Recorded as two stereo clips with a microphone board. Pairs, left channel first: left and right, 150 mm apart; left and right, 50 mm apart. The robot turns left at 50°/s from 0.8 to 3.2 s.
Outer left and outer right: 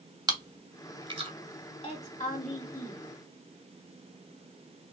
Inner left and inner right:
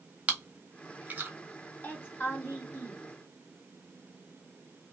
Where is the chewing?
25° right (ahead or behind), 0.8 m; by 1.3 s 35° right (ahead or behind), 0.8 m.